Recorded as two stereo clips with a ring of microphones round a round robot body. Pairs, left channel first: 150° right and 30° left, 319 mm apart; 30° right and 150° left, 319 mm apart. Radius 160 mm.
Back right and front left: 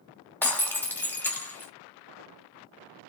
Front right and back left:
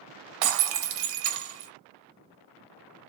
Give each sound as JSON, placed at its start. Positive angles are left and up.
{"t": 0.4, "sound": "breaking glass", "azimuth_deg": 125, "distance_m": 1.6}